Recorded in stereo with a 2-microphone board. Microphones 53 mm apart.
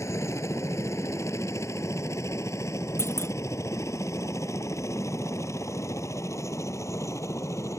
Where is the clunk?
50° left (ahead or behind).